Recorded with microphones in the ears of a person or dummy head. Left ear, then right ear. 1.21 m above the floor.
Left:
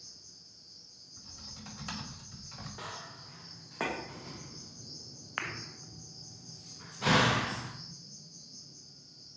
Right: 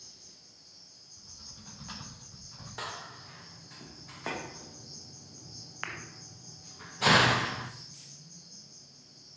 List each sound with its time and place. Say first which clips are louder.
0.0 s an insect: left 1 dB; 55° right (ahead or behind), 1.8 m
1.2 s typing on a keyboard: left 2 dB; 75° left (ahead or behind), 3 m
2.8 s a door slam: right 6 dB; 40° right (ahead or behind), 0.6 m